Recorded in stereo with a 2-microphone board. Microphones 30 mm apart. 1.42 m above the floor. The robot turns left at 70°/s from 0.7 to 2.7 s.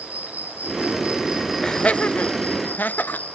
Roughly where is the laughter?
Left.